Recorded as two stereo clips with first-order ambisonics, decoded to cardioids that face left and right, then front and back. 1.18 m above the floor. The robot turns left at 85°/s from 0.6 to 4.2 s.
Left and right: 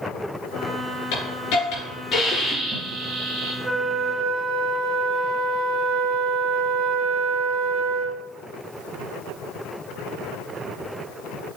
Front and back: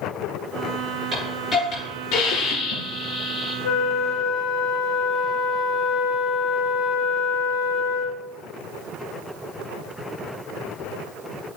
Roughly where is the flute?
Ahead.